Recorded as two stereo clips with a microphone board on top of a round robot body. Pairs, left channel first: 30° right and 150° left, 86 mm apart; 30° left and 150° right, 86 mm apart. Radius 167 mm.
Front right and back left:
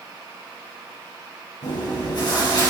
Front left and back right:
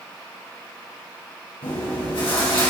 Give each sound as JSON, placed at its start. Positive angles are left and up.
{"t": 1.6, "sound": "chewing", "azimuth_deg": 5, "distance_m": 2.5}